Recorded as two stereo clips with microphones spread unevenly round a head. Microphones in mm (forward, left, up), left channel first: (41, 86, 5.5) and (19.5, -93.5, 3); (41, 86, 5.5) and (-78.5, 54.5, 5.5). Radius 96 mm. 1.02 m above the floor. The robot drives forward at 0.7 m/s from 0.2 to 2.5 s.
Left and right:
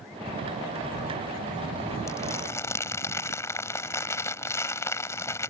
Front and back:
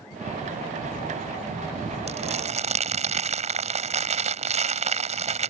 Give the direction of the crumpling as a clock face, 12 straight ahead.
7 o'clock.